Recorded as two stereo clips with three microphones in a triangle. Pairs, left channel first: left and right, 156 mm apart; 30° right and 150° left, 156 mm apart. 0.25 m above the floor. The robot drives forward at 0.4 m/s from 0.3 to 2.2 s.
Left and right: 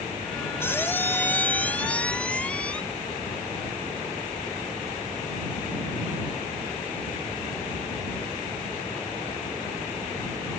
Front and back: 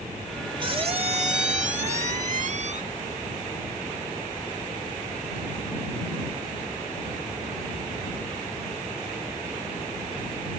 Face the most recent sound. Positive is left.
turn(degrees=170)